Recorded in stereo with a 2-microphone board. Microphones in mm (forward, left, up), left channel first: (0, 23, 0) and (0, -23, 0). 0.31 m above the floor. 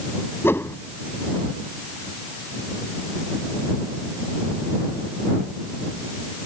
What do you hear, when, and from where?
0.4 s a whoosh: 60° left (ahead or behind)